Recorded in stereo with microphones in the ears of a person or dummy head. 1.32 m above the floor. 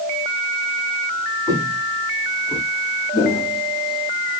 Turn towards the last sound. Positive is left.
turn(degrees=10)  # may be behind; listen again after turning